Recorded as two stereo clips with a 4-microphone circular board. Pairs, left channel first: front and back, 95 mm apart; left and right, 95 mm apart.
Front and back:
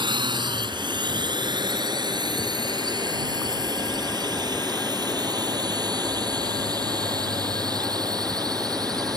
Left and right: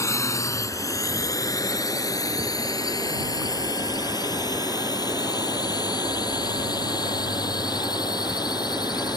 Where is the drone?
145° left; by 9.2 s 135° left.